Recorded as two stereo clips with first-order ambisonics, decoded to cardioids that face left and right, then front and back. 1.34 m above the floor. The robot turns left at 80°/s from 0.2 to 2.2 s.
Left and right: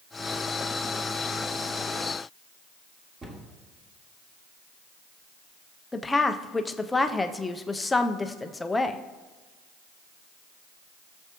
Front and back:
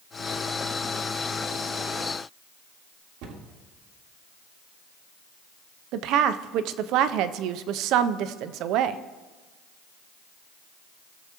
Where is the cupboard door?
160° right, 1.5 m.